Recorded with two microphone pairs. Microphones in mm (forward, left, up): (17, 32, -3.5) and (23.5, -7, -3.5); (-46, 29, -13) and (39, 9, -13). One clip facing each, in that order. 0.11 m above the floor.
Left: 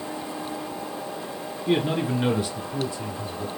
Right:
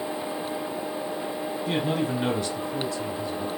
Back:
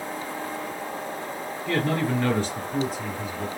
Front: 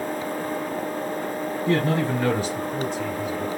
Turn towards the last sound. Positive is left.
turn(degrees=135)